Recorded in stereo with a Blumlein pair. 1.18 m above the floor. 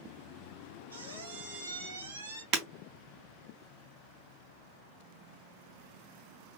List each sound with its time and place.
0.9 s a squeak: 70° right, 1.3 m
2.5 s breaking glass: 35° right, 2.5 m